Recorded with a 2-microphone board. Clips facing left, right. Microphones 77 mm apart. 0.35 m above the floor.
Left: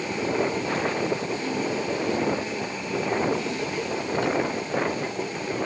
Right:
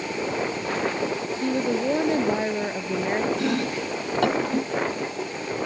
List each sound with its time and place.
1.4 s a woman speaking: 50° right (ahead or behind)
3.4 s chopping: 60° right (ahead or behind)